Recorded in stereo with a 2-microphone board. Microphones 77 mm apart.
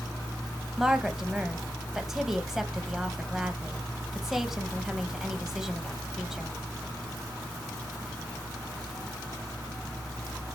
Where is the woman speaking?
5° right (ahead or behind), 1.2 m.